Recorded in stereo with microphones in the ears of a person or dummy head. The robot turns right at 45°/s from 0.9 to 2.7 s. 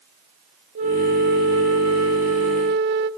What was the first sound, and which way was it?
A flute, 140° right.